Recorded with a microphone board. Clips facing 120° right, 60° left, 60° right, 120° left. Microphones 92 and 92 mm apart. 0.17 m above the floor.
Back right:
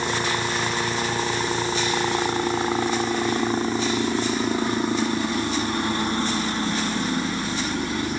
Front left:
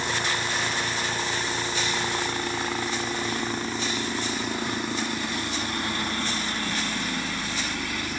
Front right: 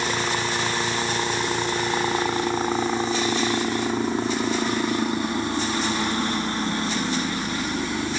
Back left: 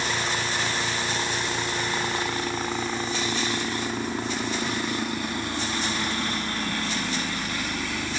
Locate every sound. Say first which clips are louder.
0.0 s a helicopter: back right 4 dB, front right 3 dB; 95° right